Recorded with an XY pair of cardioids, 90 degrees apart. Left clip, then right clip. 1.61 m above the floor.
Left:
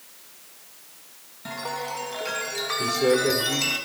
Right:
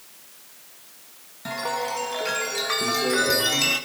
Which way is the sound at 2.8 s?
60° left.